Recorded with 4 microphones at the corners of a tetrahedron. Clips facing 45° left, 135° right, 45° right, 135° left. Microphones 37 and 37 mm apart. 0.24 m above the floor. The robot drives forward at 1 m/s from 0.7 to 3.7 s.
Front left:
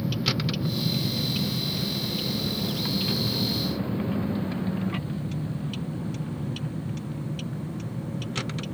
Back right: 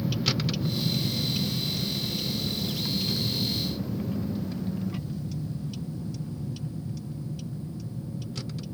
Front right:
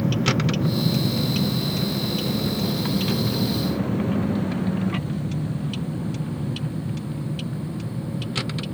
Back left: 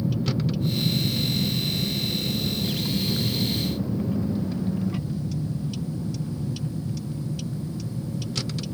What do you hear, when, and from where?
0.0 s a vehicle: 40° right; by 8.8 s 10° left